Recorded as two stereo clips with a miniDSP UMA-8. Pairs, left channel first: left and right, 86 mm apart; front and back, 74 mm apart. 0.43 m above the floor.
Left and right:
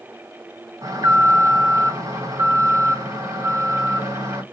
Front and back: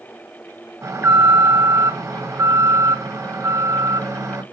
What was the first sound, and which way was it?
An alarm, 130° right.